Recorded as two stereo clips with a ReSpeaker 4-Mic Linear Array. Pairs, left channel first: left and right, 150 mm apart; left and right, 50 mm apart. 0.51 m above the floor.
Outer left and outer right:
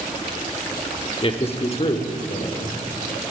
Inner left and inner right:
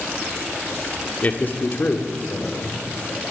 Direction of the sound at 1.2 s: 35° left (ahead or behind).